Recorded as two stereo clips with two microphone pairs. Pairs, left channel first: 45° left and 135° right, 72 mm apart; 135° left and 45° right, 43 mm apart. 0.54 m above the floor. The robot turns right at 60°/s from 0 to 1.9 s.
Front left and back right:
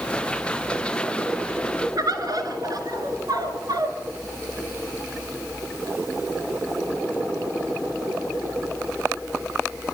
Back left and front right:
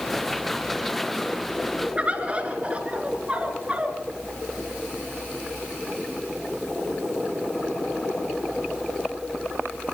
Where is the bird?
105° right, 2 m.